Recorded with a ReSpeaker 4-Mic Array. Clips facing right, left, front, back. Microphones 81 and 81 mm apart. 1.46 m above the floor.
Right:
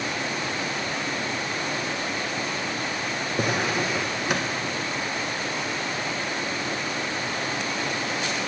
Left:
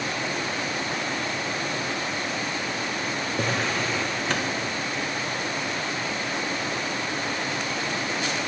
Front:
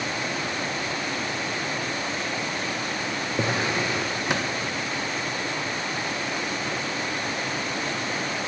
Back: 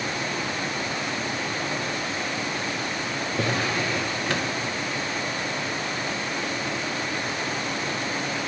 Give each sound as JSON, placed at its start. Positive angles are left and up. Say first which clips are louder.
{"t": 3.4, "sound": "a drawer", "louder": "right 2 dB, front 1 dB", "azimuth_deg": -30, "distance_m": 0.6}